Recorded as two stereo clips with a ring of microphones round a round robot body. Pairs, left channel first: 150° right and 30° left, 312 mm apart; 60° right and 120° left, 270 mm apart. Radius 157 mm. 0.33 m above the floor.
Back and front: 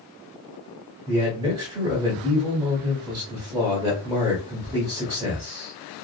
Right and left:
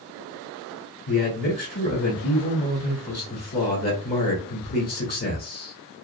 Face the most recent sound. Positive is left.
turn(degrees=-30)